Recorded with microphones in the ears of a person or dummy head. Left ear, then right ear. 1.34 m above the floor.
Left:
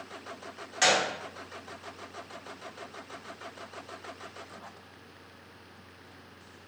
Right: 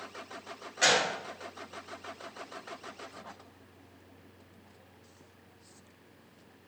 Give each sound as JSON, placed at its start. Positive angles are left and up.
{"t": 0.8, "sound": "a gunshot", "side_deg": 30, "distance_m": 1.2}